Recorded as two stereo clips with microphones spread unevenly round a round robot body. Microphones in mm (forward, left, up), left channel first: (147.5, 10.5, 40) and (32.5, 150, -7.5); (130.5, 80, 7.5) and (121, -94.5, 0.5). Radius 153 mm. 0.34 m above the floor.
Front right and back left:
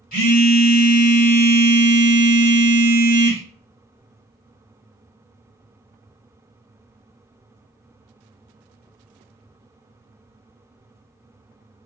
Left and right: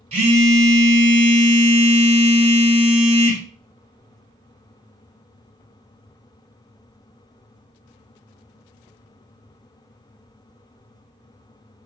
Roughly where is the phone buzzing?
Right.